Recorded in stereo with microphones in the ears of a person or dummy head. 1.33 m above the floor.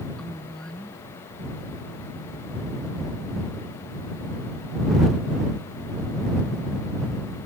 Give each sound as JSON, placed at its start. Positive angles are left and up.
{"t": 0.2, "sound": "a woman speaking", "side_deg": 10}